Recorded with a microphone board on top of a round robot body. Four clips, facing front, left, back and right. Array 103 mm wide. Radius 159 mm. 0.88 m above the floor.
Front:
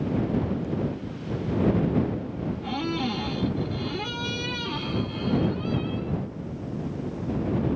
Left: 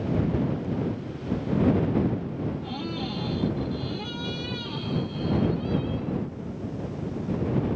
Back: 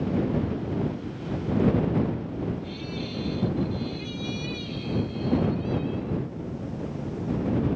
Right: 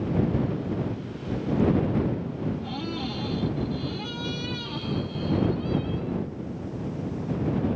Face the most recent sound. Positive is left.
turn(degrees=-5)